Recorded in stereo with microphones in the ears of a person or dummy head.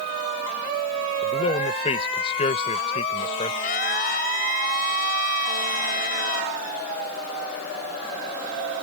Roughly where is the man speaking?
Left.